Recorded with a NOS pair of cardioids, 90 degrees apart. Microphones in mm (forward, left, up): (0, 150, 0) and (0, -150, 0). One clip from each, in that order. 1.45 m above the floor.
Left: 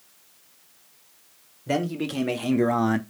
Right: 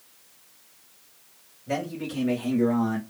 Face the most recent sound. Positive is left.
turn(degrees=60)